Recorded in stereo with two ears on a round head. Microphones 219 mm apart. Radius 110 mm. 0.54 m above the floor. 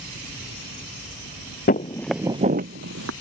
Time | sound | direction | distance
1.7 | footsteps | 35° left (ahead or behind) | ?